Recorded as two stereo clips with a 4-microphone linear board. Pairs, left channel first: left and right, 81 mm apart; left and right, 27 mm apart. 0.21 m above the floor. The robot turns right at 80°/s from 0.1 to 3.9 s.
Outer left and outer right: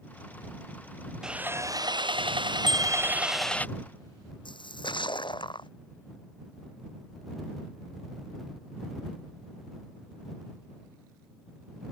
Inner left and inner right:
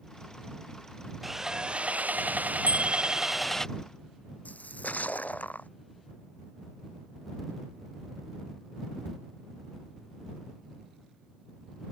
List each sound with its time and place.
1.2 s sawing: 175° right; by 3.7 s 20° left
2.7 s a bicycle bell: 100° right; by 3.6 s 20° right
4.5 s a splash: 75° left (ahead or behind)